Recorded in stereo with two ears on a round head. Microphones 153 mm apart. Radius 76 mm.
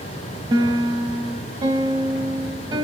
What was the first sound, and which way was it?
A piano, 25° right (ahead or behind).